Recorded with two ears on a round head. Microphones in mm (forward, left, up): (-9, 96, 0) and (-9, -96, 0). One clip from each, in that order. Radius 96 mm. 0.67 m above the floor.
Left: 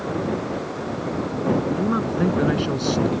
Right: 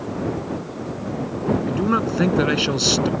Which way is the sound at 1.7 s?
60° right (ahead or behind).